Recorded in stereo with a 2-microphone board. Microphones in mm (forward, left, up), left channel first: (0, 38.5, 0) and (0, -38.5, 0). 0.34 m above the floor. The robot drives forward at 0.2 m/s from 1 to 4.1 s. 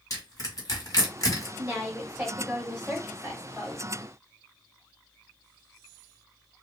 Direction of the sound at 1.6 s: 20° right (ahead or behind).